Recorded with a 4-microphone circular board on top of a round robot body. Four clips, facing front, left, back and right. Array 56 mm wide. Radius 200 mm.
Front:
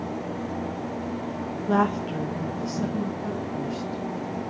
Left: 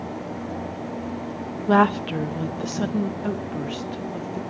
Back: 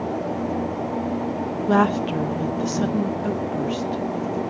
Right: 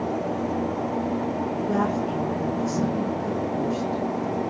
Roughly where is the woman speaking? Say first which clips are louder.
Left 9 dB, back 4 dB; left.